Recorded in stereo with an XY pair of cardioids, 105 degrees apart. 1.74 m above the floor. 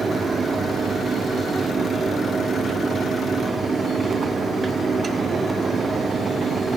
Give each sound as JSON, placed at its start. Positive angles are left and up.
{"t": 0.0, "sound": "a fan", "azimuth_deg": -35, "distance_m": 1.2}